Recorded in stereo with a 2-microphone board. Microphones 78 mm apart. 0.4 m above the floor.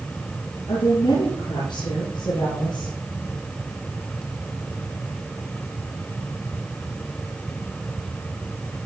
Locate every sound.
0.7 s a woman speaking: 80° left, 5.5 m; by 2.9 s 70° left (ahead or behind), 8.5 m